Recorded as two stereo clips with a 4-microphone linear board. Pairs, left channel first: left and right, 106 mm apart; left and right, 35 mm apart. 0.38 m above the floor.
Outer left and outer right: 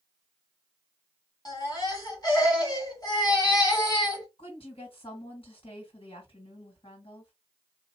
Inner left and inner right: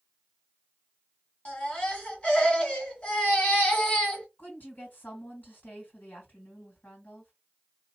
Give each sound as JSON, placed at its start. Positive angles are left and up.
{"t": 1.4, "sound": "a baby crying", "side_deg": 40, "distance_m": 1.7}
{"t": 4.4, "sound": "a woman speaking", "side_deg": 60, "distance_m": 2.5}